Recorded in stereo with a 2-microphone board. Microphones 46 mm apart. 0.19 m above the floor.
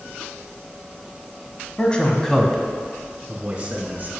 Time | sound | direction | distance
1.8 | a man speaking | 25° left (ahead or behind) | 1.1 m